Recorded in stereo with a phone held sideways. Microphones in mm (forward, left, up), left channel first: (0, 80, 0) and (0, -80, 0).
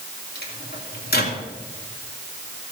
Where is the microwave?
75° left (ahead or behind), 2.5 m.